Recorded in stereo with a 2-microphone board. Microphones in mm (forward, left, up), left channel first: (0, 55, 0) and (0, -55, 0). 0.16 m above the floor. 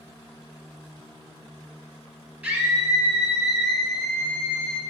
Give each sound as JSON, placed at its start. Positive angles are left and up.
{"t": 2.4, "sound": "a scream", "side_deg": -15, "distance_m": 3.5}